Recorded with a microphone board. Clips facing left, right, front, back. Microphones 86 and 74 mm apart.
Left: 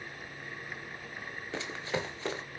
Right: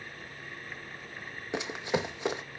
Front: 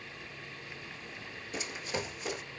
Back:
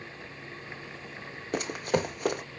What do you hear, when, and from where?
1.5 s running footsteps: 160° right, 0.9 m